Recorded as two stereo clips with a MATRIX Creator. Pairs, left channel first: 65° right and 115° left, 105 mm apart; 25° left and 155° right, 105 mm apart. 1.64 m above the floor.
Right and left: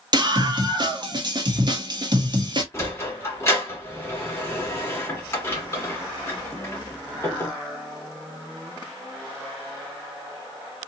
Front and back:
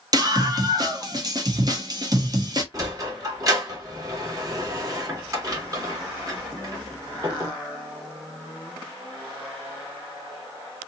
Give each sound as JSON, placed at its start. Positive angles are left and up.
{"t": 0.1, "sound": "a scream", "azimuth_deg": 155, "distance_m": 1.2}
{"t": 2.7, "sound": "a sliding door", "azimuth_deg": -120, "distance_m": 1.5}